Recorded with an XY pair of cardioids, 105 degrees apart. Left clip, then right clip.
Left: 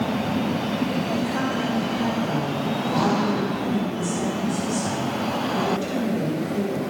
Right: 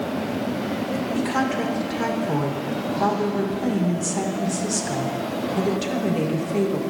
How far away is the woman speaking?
About 1.4 m.